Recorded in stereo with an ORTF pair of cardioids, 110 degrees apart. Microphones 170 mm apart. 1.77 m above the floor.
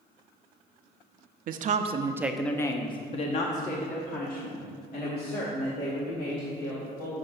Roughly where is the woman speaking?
Ahead right.